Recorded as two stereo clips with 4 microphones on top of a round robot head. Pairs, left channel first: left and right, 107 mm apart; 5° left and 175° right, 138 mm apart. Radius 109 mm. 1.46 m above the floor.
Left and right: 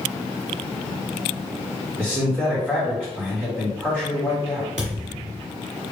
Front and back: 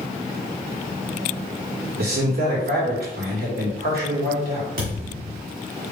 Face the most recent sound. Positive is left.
turn(degrees=-140)